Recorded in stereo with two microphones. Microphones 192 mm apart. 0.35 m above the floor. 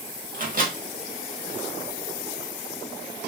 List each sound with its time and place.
0.3 s a microwave: 45° right (ahead or behind), 1.1 m